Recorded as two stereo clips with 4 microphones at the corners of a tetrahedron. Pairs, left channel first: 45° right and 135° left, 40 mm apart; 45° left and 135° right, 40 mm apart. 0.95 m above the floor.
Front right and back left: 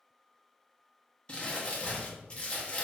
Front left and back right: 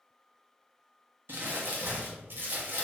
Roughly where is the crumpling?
Right.